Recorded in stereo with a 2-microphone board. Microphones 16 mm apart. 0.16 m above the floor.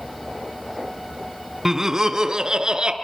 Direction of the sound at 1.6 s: 25° right (ahead or behind).